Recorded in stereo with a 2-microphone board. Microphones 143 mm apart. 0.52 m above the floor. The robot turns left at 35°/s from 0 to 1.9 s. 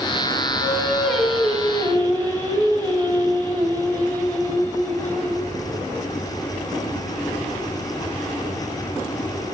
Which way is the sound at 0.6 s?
105° right.